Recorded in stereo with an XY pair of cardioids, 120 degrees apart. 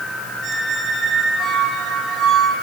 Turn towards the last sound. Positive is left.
turn(degrees=-55)